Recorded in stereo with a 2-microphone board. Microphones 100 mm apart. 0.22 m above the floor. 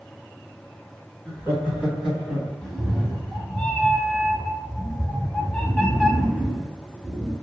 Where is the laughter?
25° right (ahead or behind), 1.5 m; by 2.5 s centre (ahead or behind), 1.5 m.